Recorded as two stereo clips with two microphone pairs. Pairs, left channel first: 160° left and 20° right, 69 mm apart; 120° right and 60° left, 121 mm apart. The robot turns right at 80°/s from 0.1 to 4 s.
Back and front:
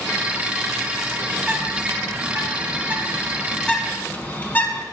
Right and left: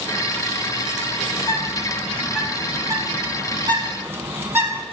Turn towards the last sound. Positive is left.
turn(degrees=115)